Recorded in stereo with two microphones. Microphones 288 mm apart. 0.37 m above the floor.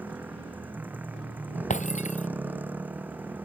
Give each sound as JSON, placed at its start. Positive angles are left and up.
{"t": 0.0, "sound": "a motorcycle", "side_deg": -5}
{"t": 1.7, "sound": "breaking glass", "side_deg": 25}